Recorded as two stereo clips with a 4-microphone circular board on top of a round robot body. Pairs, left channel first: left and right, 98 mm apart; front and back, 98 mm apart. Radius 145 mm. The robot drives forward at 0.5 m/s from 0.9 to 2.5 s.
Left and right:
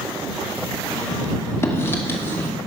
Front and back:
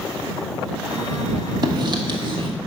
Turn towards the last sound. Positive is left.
turn(degrees=160)